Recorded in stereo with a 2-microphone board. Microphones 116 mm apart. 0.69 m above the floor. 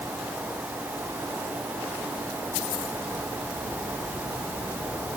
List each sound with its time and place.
Only background noise.